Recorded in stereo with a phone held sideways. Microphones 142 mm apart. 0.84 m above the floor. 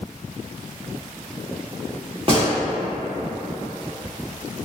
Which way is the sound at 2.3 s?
40° right (ahead or behind).